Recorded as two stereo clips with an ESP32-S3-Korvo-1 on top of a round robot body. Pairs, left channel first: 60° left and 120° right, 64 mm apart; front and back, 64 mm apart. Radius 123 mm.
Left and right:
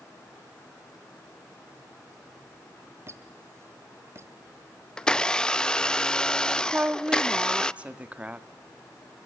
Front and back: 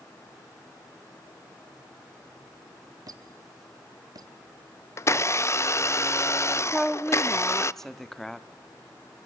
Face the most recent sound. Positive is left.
turn(degrees=-75)